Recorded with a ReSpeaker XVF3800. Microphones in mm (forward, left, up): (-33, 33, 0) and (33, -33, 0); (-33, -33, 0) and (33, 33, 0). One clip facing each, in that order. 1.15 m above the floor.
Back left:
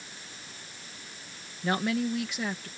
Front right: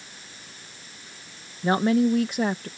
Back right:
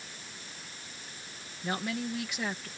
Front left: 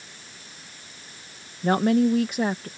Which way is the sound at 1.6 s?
15° left.